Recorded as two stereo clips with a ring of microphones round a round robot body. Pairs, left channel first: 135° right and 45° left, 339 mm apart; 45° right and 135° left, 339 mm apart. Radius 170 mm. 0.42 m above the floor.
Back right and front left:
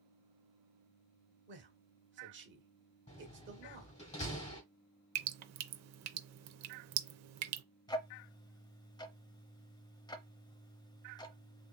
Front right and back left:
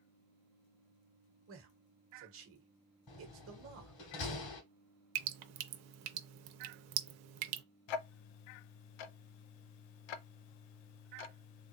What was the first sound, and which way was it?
A man speaking, 95° left.